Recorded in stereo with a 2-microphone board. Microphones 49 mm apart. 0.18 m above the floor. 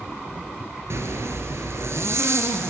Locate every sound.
0.9 s a zipper: 65° right (ahead or behind), 1.1 m